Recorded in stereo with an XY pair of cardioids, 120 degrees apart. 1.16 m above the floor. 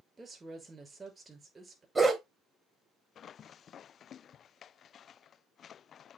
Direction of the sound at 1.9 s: 25° right.